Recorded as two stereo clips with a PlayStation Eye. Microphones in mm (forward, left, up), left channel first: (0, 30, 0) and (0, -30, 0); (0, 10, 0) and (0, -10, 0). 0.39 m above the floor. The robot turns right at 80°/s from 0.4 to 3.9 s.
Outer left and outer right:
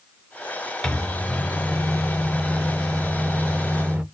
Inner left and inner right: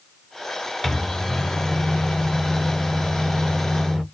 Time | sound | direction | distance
0.8 | a microwave | 15° left (ahead or behind) | 0.6 m